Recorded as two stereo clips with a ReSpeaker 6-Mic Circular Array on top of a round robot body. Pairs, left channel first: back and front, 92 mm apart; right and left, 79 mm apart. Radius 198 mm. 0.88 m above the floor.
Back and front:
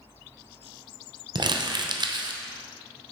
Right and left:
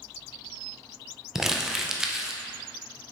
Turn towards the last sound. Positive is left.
turn(degrees=5)